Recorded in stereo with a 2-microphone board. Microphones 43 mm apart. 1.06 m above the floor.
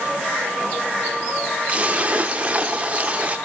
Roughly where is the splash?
Right.